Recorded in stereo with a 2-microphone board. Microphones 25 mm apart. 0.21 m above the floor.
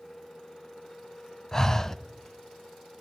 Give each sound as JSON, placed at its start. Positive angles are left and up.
{"t": 1.5, "sound": "breathing", "side_deg": 20, "distance_m": 0.6}